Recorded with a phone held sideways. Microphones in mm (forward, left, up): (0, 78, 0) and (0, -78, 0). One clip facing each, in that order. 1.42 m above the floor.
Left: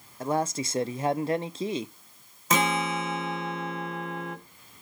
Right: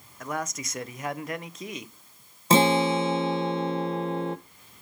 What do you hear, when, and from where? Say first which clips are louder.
0.2 s a man speaking: left 6 dB; 30° left (ahead or behind), 0.5 m
2.5 s a guitar: right 6 dB; 30° right (ahead or behind), 1.0 m